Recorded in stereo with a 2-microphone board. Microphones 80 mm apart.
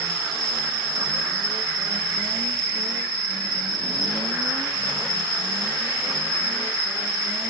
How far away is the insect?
About 2.5 m.